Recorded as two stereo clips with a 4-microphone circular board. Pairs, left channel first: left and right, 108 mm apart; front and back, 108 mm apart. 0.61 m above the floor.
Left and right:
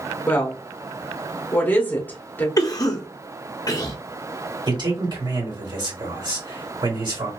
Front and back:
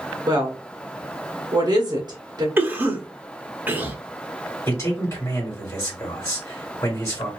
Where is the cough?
120° left, 0.8 m.